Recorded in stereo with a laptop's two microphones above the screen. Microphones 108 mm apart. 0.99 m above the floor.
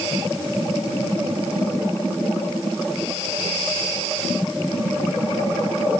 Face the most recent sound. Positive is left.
No sound to turn to.